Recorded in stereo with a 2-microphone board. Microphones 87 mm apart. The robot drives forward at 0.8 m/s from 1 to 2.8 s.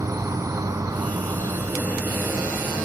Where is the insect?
40° right (ahead or behind), 0.8 m; by 2.9 s 20° right (ahead or behind), 1.8 m.